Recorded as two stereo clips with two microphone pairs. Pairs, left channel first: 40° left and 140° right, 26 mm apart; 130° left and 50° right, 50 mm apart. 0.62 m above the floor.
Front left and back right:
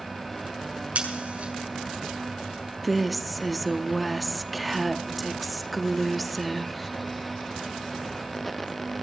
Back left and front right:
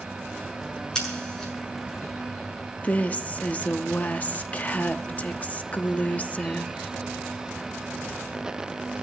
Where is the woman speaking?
135° left, 0.8 m.